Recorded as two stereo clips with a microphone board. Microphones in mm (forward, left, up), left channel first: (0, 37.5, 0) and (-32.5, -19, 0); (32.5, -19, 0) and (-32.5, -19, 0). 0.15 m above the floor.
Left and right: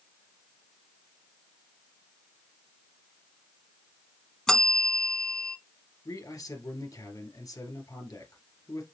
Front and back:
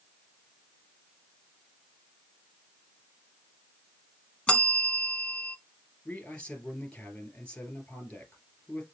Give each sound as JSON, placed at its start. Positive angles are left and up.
{"t": 4.5, "sound": "a bell", "azimuth_deg": -5, "distance_m": 0.7}
{"t": 6.0, "sound": "a man speaking", "azimuth_deg": 70, "distance_m": 2.5}